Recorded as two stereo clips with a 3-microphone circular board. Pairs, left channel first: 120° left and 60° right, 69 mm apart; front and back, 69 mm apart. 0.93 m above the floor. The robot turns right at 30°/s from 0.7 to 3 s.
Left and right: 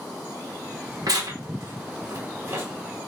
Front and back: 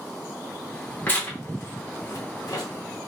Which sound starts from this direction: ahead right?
Tearing paper, at 1.1 s.